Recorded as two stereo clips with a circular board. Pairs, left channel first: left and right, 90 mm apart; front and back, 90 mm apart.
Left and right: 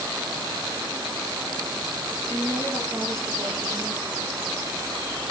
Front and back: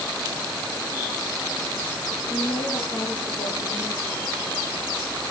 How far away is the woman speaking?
About 5.5 m.